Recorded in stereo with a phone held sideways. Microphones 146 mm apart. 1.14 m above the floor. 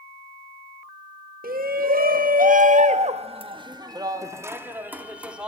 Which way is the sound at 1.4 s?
80° right.